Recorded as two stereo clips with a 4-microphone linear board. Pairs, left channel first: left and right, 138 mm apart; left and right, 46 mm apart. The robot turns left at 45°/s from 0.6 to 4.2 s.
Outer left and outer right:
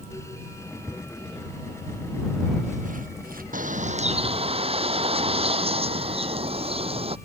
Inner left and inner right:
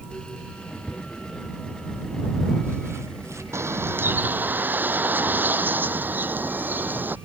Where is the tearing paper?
25° left (ahead or behind); by 3.4 s 90° right.